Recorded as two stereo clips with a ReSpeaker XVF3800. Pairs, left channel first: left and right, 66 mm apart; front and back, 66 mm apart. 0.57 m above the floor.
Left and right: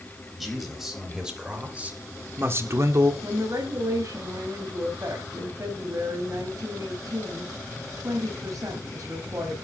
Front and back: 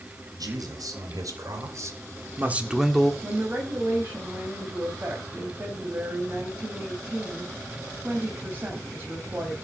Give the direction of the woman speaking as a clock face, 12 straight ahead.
4 o'clock.